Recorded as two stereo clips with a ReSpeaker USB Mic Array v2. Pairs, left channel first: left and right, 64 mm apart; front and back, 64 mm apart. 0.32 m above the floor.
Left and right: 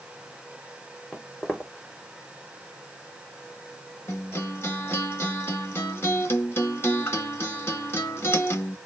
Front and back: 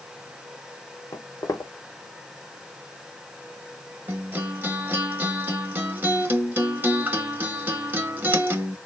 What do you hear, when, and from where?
1.1 s footsteps: 10° left, 0.9 m
4.1 s a guitar: 130° left, 0.8 m